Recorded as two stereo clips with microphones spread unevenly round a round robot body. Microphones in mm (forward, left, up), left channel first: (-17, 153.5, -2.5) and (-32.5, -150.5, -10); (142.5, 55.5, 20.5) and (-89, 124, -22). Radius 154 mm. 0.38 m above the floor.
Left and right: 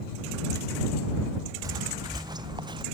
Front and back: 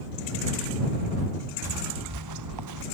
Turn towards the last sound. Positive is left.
turn(degrees=-170)